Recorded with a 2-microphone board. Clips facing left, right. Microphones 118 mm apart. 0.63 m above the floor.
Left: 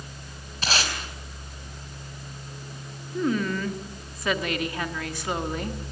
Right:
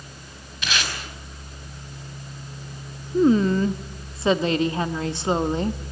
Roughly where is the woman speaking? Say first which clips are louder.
Right 8 dB; right.